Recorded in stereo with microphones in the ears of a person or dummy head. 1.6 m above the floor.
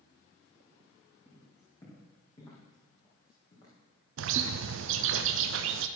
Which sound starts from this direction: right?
A bird, at 4.2 s.